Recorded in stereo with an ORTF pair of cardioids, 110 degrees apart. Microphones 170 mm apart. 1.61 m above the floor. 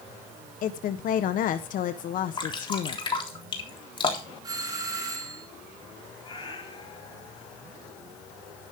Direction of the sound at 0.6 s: 60° left.